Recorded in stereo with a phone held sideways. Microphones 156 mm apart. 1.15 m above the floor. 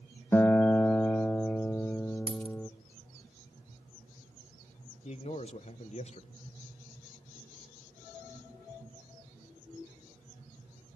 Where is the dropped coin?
35° right (ahead or behind), 0.8 m.